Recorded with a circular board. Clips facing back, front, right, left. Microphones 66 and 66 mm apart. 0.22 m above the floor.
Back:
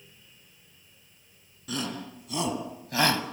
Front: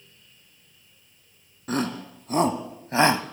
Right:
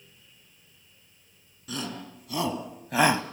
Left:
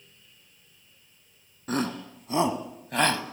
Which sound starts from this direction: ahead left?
A shout, at 1.7 s.